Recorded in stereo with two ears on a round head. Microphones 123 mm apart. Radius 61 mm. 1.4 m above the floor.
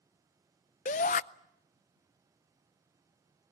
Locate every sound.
0.8 s a shout: 55° left (ahead or behind), 0.6 m